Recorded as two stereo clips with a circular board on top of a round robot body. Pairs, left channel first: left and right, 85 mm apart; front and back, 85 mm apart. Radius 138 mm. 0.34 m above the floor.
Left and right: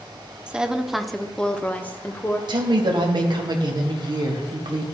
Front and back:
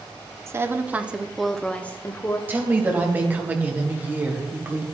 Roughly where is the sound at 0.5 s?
Behind.